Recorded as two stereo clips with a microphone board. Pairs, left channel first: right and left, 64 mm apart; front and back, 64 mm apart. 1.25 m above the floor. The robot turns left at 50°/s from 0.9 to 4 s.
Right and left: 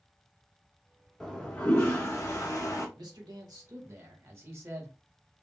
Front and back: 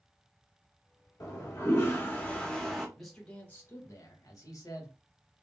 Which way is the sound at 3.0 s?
90° left.